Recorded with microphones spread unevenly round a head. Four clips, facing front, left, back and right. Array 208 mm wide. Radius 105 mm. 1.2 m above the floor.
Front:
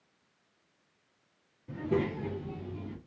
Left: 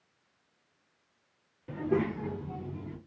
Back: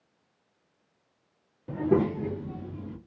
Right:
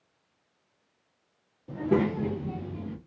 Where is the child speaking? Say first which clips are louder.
Right 4 dB, back 6 dB; 175° right, 0.5 m; by 3.0 s 100° right, 1.3 m.